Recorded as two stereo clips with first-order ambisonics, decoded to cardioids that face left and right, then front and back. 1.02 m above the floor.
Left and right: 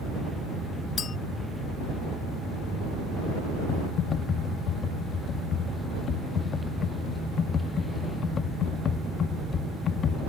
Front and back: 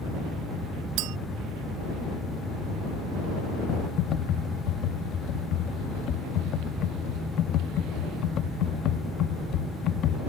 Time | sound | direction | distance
1.0 | a clink | 155° left | ?
3.7 | typing on a keyboard | 35° left | ?